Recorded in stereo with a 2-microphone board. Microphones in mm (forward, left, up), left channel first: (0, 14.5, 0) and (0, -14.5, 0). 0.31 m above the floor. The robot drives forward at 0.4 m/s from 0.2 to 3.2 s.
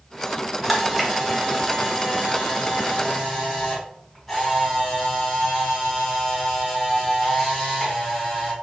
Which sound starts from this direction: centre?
A camera shutter, at 0.6 s.